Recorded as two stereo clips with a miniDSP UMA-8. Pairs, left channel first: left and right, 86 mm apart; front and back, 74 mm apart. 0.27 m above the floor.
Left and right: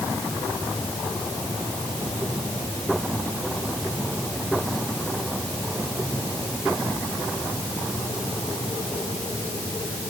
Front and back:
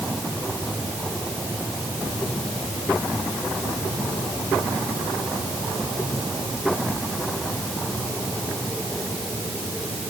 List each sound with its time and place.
Only background noise.